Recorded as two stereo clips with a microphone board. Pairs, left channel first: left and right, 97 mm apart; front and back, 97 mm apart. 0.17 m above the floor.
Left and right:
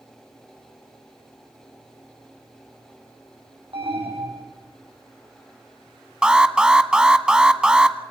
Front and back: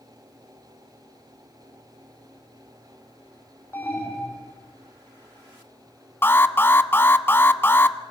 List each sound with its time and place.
3.7 s an alarm: 65° right, 4.5 m
6.2 s an alarm: 20° right, 0.9 m